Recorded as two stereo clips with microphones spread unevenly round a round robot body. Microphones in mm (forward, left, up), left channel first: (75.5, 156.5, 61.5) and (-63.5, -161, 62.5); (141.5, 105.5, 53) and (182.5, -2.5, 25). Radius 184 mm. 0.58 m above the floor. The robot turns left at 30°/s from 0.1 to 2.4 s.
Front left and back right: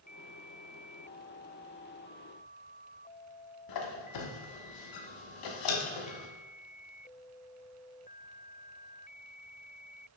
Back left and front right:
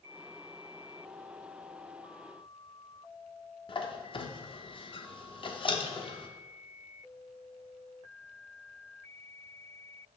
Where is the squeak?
60° left, 1.0 m.